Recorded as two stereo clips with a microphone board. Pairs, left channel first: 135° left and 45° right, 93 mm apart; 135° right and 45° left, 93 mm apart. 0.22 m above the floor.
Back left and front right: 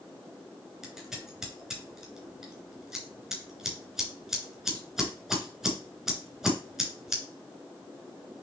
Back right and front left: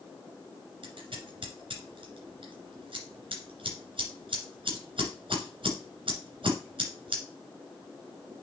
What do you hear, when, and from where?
0.8 s scissors: 40° left, 3 m